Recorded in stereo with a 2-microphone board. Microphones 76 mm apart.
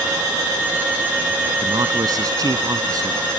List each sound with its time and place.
1.6 s a man speaking: 55° right (ahead or behind)